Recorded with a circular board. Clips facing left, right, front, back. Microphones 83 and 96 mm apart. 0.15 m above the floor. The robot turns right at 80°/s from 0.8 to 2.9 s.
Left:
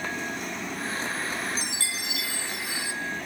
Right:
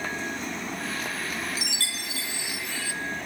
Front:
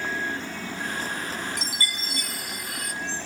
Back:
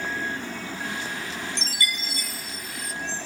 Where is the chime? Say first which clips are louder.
Left 1 dB, back 1 dB; 80° right, 1.2 m; by 2.9 s 25° left, 1.2 m.